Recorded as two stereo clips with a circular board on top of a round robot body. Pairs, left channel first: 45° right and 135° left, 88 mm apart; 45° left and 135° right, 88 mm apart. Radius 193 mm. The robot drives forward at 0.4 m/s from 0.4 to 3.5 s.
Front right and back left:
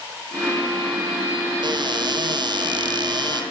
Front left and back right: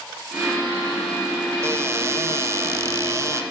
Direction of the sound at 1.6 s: 165° left.